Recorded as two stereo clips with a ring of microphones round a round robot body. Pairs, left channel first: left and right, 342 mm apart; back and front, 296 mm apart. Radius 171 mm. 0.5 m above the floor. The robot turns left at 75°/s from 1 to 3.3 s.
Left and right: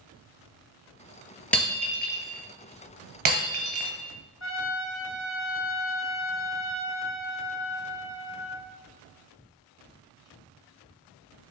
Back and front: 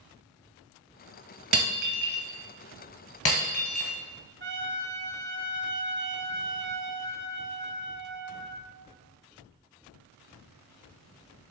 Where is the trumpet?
45° left, 1.5 m.